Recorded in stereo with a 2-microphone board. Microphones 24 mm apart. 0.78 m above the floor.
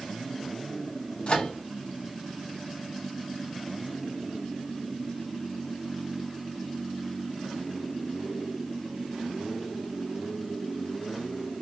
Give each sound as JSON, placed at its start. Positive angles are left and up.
{"t": 1.3, "sound": "a microwave", "side_deg": 40, "distance_m": 0.7}